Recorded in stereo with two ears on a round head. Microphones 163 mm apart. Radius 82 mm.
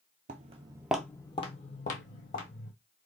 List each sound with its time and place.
0.3 s footsteps: 45° right (ahead or behind), 0.6 m; by 2.7 s 55° left (ahead or behind), 1.4 m